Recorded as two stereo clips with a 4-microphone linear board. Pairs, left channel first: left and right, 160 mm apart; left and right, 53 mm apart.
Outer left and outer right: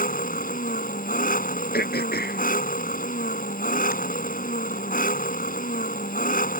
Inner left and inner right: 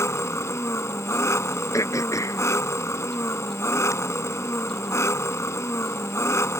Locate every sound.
0.0 s an engine running: 65° left (ahead or behind)
1.7 s throat clearing: 90° left